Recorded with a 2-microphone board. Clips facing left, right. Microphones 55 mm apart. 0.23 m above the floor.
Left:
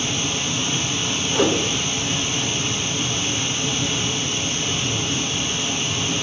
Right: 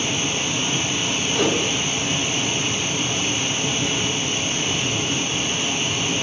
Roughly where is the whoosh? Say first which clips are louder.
Left 2 dB; centre.